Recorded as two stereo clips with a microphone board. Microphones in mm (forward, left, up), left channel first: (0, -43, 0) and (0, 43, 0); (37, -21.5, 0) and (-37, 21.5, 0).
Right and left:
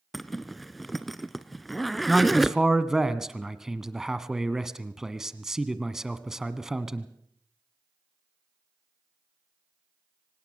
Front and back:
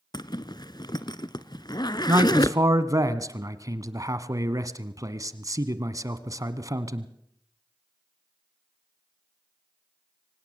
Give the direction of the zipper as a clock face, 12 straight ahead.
12 o'clock.